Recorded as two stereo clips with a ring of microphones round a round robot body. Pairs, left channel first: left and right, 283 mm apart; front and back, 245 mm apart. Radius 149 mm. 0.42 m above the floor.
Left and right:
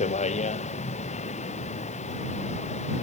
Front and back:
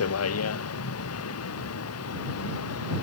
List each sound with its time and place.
0.0 s a vehicle: 20° left